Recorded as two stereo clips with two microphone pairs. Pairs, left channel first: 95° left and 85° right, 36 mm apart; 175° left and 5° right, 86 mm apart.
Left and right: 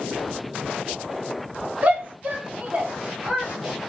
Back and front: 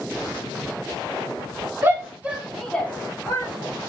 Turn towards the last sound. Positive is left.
turn(degrees=-150)